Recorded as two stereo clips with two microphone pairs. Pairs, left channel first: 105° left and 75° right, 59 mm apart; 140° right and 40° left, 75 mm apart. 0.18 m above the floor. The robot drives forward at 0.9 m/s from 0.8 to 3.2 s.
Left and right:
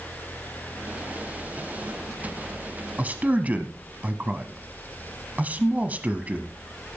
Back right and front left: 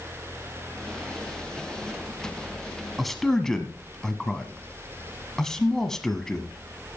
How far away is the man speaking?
About 1.2 m.